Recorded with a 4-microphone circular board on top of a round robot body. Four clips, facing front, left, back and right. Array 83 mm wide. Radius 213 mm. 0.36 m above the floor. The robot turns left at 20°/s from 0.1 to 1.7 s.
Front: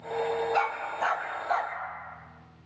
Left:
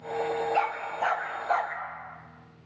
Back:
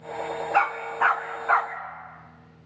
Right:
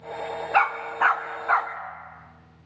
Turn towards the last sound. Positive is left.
turn(degrees=-140)